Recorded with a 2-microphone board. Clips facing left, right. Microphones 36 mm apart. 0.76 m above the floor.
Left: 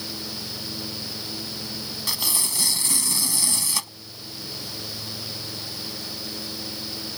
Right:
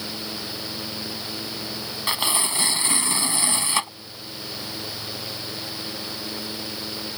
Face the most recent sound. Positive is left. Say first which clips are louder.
# right 5 dB
turn(degrees=-35)  # may be behind; listen again after turning